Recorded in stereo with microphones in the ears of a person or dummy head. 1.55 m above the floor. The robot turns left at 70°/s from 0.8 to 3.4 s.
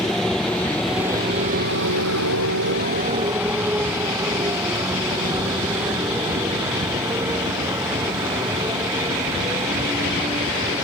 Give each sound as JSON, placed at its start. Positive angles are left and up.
{"t": 0.0, "sound": "a motorcycle", "side_deg": 5}